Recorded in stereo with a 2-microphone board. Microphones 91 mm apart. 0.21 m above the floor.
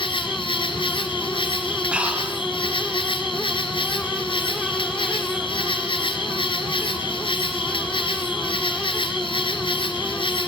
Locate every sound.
0.0 s an insect: 70° left (ahead or behind), 1.8 m
1.9 s breathing: 15° right (ahead or behind), 2 m